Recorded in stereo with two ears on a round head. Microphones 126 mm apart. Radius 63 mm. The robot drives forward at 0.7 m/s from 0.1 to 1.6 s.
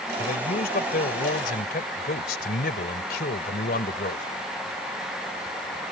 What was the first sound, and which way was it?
A man speaking, 65° left (ahead or behind).